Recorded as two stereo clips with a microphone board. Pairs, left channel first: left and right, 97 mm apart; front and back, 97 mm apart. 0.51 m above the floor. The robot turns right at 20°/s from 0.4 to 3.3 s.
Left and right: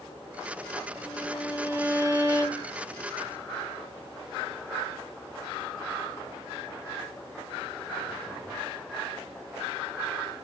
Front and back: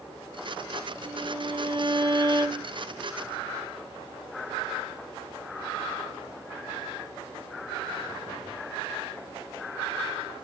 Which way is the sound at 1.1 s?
170° right.